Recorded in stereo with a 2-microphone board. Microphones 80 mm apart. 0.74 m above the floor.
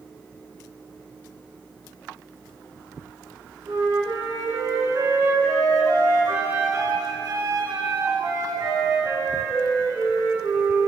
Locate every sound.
3.7 s a flute: 45° right (ahead or behind), 1.4 m